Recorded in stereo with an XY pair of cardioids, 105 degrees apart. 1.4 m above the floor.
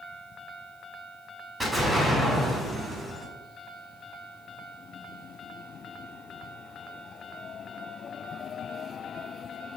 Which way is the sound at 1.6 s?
25° right.